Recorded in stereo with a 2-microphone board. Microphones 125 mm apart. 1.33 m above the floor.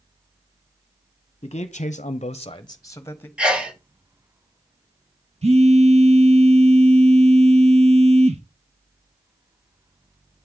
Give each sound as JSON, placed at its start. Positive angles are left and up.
{"t": 1.4, "sound": "a man speaking", "side_deg": 45, "distance_m": 0.8}
{"t": 3.4, "sound": "a sneeze", "side_deg": -5, "distance_m": 1.7}
{"t": 5.4, "sound": "a phone buzzing", "side_deg": -55, "distance_m": 1.3}